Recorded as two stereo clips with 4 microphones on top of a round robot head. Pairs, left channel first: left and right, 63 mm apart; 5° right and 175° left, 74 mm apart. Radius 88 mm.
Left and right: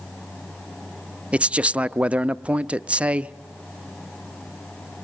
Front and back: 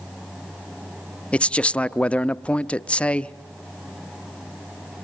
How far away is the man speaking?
About 0.6 m.